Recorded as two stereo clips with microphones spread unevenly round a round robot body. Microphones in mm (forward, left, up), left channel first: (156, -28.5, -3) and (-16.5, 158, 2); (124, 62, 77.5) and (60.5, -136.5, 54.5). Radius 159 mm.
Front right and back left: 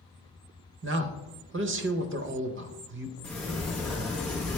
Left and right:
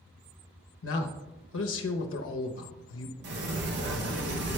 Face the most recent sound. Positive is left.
turn(degrees=-130)